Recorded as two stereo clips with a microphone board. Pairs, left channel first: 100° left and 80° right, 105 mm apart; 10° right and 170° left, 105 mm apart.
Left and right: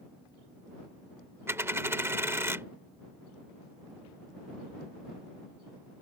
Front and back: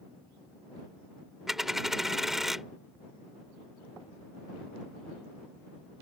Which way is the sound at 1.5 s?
110° right.